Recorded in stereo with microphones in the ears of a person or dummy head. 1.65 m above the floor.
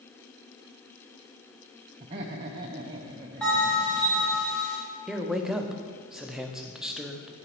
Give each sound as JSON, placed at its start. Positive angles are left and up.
{"t": 2.0, "sound": "laughter", "side_deg": -20, "distance_m": 0.6}
{"t": 3.4, "sound": "a bell", "side_deg": 0, "distance_m": 2.0}
{"t": 5.1, "sound": "a man speaking", "side_deg": -5, "distance_m": 0.6}